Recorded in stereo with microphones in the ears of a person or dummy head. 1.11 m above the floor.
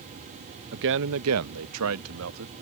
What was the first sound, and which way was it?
A man speaking, 55° right (ahead or behind).